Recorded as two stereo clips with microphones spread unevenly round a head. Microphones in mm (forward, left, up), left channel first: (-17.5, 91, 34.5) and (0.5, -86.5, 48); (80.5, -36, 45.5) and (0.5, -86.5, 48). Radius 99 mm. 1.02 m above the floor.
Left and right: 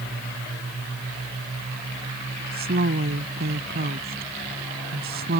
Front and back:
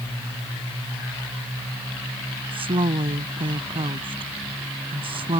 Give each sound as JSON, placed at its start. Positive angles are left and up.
{"t": 2.5, "sound": "a woman speaking", "azimuth_deg": -120}